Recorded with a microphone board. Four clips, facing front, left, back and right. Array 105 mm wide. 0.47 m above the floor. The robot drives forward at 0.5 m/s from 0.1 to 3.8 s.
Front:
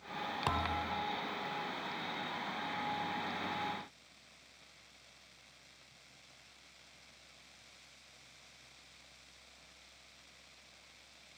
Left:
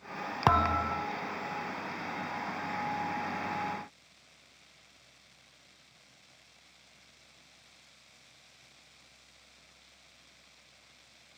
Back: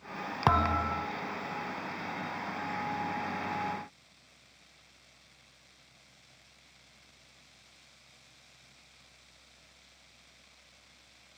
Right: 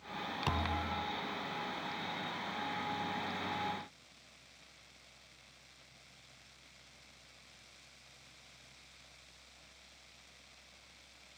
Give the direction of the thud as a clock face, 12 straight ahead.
8 o'clock.